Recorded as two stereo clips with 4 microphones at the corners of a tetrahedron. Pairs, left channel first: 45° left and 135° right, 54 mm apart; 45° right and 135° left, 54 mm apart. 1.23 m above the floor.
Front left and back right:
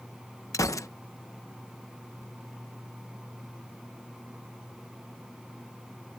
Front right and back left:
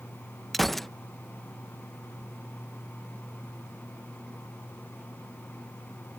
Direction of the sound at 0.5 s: 40° left.